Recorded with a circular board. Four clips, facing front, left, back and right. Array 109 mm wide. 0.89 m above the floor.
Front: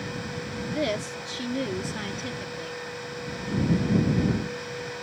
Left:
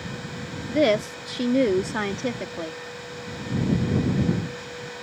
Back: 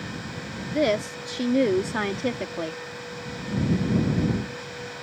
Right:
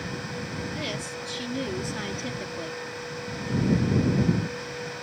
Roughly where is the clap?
No clap in this recording.